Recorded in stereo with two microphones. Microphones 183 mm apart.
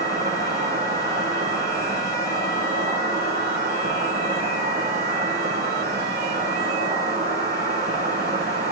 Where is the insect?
65° right (ahead or behind), 8 m.